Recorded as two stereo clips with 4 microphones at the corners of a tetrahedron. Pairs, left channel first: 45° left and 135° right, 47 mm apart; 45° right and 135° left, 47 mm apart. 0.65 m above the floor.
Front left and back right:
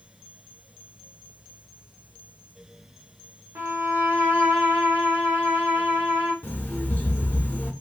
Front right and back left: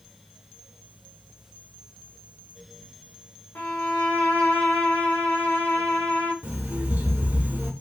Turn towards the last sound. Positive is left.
turn(degrees=95)